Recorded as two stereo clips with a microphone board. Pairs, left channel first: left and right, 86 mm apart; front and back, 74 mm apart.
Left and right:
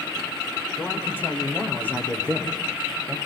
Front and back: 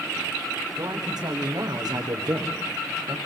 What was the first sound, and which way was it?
A man speaking, 155° left.